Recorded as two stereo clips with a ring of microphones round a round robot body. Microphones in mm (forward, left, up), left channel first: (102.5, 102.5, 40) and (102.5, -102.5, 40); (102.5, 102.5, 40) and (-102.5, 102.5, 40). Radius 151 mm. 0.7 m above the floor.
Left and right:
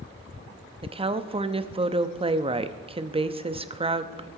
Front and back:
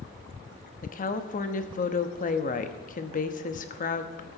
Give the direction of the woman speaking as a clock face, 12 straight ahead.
1 o'clock.